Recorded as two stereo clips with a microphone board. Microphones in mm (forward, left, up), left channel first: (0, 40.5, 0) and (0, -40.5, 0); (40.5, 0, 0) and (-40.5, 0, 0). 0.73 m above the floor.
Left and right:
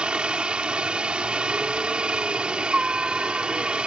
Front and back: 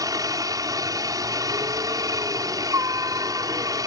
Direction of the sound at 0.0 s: 165° right.